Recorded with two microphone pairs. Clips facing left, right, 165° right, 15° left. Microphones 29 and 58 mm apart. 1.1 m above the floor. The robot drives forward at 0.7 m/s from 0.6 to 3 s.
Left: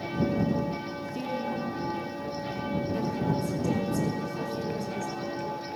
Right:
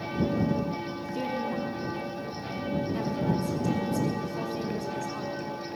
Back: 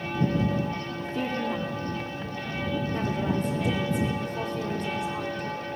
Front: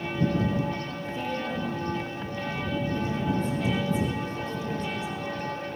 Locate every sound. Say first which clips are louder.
1.0 s a woman speaking: right 2 dB, back 5 dB; 175° right, 3 m